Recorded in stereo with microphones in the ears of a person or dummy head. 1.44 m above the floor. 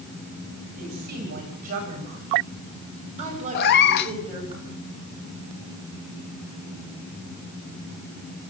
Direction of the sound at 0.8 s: 45° right (ahead or behind).